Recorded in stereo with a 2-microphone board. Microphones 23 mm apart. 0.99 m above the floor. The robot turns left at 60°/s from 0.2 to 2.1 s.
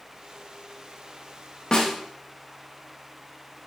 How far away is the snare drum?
About 0.7 m.